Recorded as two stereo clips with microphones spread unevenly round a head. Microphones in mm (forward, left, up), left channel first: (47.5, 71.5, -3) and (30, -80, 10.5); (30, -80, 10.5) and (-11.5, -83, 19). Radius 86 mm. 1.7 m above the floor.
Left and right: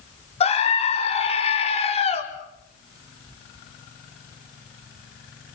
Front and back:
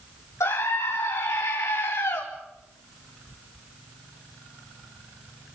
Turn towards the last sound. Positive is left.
turn(degrees=35)